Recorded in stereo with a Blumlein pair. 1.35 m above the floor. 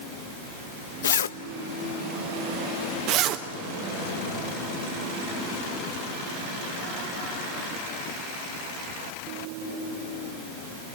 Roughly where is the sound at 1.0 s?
Ahead left.